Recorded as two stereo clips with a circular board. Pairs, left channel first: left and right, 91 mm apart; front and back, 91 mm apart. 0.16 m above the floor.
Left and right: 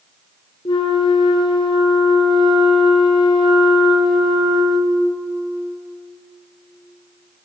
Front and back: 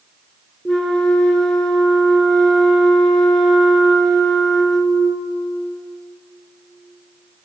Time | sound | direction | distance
0.7 | a flute | 85° left | 0.6 m